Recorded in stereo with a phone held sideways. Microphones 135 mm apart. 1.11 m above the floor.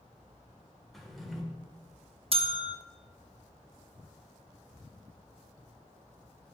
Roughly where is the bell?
Right.